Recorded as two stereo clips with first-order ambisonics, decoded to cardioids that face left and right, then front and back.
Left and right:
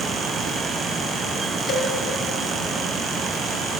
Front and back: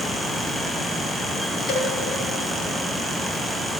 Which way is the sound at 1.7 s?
30° left.